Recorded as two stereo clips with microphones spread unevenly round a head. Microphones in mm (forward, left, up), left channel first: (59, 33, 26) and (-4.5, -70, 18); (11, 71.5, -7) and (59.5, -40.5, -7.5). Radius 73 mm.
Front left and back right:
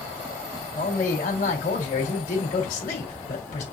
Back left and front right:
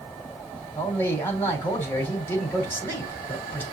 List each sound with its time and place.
0.8 s a man speaking: 40° left, 3 m